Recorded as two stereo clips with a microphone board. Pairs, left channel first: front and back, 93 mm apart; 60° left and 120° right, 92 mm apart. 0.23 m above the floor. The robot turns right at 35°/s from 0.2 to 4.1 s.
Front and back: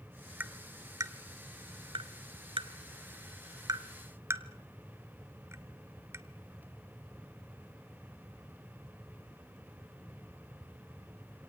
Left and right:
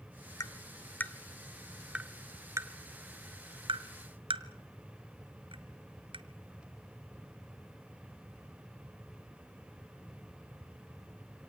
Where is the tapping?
110° left, 1.0 m; by 6.2 s 125° right, 1.0 m.